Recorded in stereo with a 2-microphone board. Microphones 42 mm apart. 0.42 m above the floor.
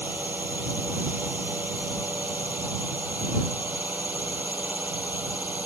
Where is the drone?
55° right (ahead or behind); by 5.7 s 50° right (ahead or behind).